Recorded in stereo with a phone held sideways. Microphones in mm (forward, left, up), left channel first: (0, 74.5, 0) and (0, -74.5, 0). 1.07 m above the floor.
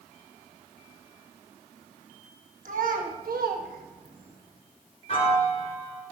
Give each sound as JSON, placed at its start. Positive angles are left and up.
{"t": 2.6, "sound": "a child speaking", "side_deg": -60, "distance_m": 1.1}
{"t": 5.1, "sound": "a piano", "side_deg": 40, "distance_m": 1.7}